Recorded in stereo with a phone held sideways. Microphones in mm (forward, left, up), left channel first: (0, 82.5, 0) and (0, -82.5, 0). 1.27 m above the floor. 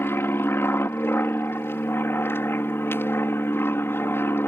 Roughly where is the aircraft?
Centre.